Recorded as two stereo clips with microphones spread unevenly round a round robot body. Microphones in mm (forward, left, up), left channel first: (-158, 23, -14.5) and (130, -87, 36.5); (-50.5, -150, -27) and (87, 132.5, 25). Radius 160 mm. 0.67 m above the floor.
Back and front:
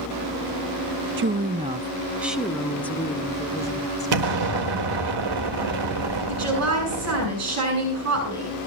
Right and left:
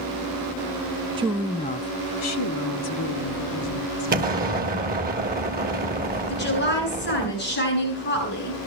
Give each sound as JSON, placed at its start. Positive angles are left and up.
{"t": 1.2, "sound": "a woman speaking", "azimuth_deg": -10, "distance_m": 0.5}
{"t": 4.1, "sound": "an explosion", "azimuth_deg": 0, "distance_m": 1.5}
{"t": 6.3, "sound": "a woman speaking", "azimuth_deg": -60, "distance_m": 8.5}